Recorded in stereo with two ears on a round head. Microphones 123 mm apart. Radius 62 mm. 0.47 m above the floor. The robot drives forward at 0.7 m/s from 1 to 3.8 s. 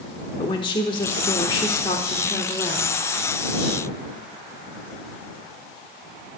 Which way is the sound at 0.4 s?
30° left (ahead or behind).